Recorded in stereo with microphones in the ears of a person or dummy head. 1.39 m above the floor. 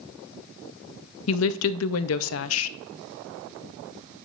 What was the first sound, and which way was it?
A woman speaking, 75° left (ahead or behind).